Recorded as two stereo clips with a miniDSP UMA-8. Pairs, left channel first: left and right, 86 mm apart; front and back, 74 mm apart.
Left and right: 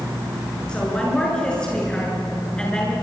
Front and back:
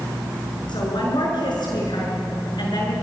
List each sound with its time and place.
0.7 s a woman speaking: 10° left, 6.5 m